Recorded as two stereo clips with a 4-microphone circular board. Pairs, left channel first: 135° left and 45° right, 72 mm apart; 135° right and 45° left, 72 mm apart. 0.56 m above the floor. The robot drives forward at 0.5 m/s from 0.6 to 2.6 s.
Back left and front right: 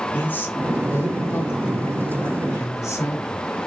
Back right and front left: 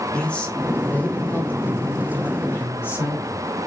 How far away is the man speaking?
About 1.1 m.